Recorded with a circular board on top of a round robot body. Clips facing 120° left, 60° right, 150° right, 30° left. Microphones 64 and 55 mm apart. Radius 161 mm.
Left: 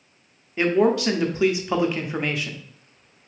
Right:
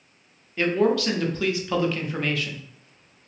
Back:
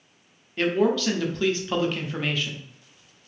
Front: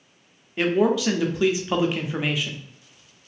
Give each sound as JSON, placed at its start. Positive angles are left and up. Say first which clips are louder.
{"t": 0.6, "sound": "a man speaking", "louder": "left 2 dB, front 2 dB", "azimuth_deg": 90, "distance_m": 0.8}